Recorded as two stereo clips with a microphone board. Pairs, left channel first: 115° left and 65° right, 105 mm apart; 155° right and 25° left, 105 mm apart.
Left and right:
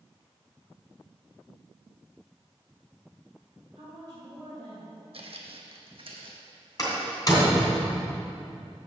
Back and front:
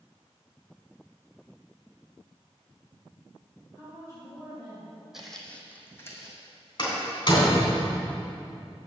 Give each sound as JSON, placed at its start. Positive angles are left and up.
{"t": 3.8, "sound": "a woman speaking", "azimuth_deg": -110, "distance_m": 3.0}
{"t": 5.1, "sound": "footsteps", "azimuth_deg": -65, "distance_m": 1.1}
{"t": 6.8, "sound": "a door slam", "azimuth_deg": 165, "distance_m": 3.0}